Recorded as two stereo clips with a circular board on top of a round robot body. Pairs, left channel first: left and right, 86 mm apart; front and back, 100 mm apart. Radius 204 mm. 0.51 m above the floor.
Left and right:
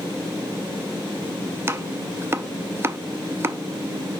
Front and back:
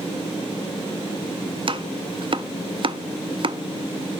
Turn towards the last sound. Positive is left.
turn(degrees=-150)